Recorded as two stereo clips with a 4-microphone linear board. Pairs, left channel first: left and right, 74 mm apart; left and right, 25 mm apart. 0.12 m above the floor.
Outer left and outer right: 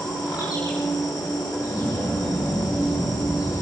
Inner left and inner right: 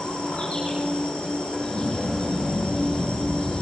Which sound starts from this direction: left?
An insect, at 0.0 s.